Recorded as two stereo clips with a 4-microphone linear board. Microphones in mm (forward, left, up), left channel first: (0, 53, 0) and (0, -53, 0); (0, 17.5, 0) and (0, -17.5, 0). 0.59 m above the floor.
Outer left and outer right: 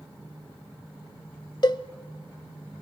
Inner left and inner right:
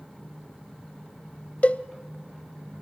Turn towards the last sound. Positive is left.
turn(degrees=45)  # may be behind; listen again after turning